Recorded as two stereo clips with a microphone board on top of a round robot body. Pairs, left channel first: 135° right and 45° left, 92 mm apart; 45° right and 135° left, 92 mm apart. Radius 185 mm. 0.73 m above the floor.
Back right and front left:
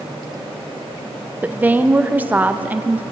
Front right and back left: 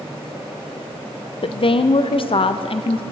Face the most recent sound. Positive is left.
turn(degrees=-25)